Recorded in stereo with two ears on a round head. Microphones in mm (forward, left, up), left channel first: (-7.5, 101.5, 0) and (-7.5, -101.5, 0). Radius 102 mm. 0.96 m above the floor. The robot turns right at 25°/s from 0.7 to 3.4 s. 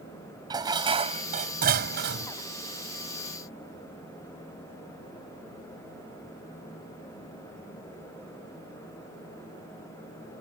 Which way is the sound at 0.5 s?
160° right.